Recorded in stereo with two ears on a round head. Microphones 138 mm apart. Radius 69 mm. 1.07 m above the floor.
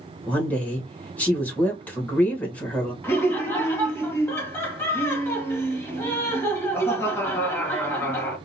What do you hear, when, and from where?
0.3 s a woman speaking: 10° left (ahead or behind), 1.4 m
3.0 s laughter: 15° left (ahead or behind), 2.0 m